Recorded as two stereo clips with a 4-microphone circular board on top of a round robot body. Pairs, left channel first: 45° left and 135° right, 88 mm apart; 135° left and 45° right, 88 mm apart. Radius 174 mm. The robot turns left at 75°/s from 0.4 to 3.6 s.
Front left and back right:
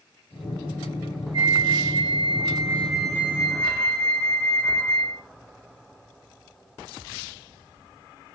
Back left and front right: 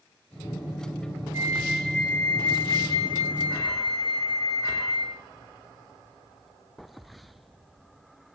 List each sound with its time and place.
1.3 s a flute: 100° right, 4.5 m; by 5.2 s 95° left, 4.5 m